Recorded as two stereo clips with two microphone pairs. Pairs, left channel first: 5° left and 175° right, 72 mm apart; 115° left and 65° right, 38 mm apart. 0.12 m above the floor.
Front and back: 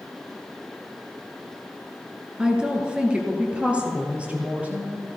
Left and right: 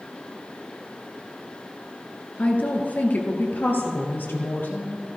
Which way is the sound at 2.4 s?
110° left.